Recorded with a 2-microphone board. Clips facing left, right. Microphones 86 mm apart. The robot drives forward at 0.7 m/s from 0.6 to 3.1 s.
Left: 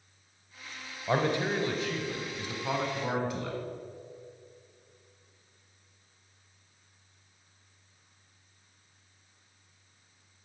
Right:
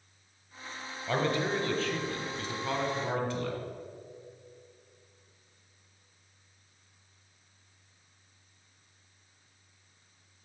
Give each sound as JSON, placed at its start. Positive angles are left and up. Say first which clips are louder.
{"t": 1.1, "sound": "a man speaking", "louder": "left 1 dB", "side_deg": 20, "distance_m": 0.9}